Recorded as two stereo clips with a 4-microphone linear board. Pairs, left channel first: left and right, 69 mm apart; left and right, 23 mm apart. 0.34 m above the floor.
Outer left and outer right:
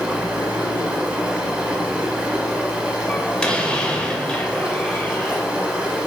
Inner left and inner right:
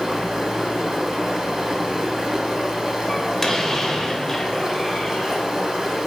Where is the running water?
15° right (ahead or behind), 1.0 m.